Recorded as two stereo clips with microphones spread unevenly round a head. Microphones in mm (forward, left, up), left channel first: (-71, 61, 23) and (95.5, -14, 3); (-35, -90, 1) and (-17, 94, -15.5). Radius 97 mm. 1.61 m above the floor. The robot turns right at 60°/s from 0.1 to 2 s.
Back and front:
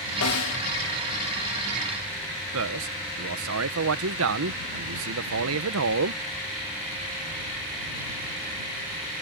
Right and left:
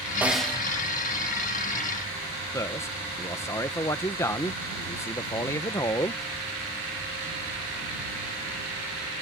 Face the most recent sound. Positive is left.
turn(degrees=-20)